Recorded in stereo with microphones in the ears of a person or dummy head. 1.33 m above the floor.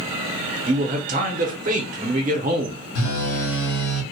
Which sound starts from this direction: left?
A phone buzzing, at 3.0 s.